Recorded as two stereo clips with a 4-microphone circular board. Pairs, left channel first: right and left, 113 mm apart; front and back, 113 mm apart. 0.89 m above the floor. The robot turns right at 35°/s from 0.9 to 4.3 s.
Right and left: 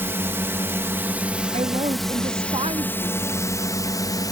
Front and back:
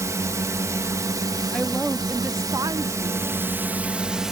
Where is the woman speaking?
80° left; by 3.3 s 145° left.